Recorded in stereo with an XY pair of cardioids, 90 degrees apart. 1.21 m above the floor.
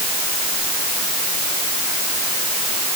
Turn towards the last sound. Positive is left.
No sound to turn to.